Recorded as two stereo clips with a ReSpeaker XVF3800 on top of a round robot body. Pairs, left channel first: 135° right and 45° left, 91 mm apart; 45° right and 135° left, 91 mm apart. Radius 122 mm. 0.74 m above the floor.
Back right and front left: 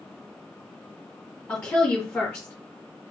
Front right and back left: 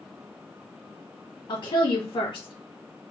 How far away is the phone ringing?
No phone ringing in this recording.